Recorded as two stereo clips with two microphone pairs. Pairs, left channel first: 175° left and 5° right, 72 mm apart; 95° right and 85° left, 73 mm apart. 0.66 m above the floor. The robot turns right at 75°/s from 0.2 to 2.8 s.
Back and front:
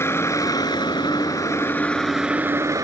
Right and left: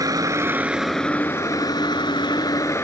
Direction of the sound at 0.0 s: 125° left.